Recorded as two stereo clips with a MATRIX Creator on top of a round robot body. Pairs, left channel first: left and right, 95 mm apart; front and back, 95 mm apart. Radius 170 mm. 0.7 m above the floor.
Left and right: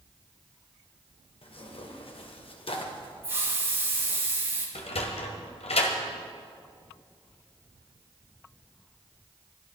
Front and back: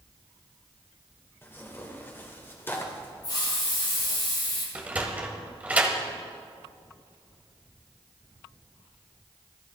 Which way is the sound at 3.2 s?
25° right.